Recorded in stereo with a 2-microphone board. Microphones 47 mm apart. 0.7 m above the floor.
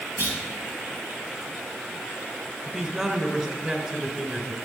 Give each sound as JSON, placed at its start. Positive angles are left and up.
{"t": 0.2, "sound": "a clunk", "side_deg": -55, "distance_m": 3.5}
{"t": 2.6, "sound": "a man speaking", "side_deg": -15, "distance_m": 2.5}